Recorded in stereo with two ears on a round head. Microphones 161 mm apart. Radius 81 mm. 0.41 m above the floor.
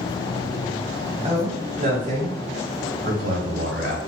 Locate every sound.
1.2 s a man speaking: 30° right (ahead or behind), 1.9 m; by 4.0 s 65° right (ahead or behind), 1.8 m